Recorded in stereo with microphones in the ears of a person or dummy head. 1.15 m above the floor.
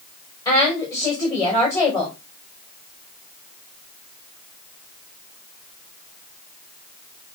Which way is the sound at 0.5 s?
20° left (ahead or behind).